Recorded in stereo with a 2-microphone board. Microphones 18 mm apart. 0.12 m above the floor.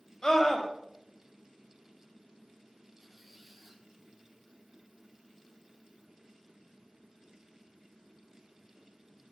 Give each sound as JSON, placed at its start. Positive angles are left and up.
{"t": 0.2, "sound": "a scream", "side_deg": 35, "distance_m": 5.5}
{"t": 3.0, "sound": "a squeak", "side_deg": -10, "distance_m": 1.9}